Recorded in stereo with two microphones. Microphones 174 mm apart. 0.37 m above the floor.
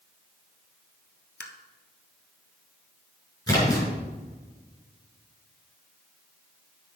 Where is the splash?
20° left (ahead or behind), 5.5 m.